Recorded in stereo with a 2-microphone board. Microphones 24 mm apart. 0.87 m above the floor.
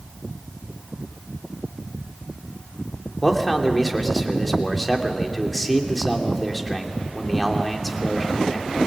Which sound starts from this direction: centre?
A man speaking, at 3.2 s.